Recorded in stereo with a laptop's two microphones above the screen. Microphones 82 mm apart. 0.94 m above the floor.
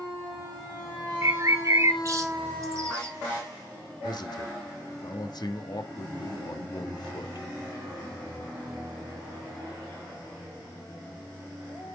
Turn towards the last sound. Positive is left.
turn(degrees=55)  # may be behind; listen again after turning